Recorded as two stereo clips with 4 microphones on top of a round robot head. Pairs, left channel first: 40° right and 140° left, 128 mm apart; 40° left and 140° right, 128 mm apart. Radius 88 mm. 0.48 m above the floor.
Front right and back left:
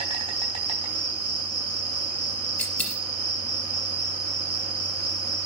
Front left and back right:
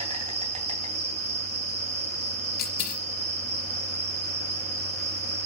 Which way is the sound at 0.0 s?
175° right.